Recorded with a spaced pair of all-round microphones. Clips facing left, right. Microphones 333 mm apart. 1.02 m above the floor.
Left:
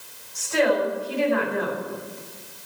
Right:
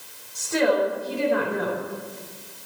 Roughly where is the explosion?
I don't hear an explosion.